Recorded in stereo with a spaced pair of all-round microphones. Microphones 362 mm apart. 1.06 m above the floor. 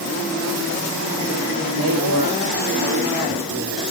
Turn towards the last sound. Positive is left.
turn(degrees=-45)  # may be behind; listen again after turning